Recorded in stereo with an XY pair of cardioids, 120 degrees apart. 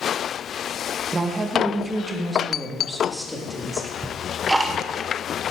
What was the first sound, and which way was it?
A woman speaking, 25° right.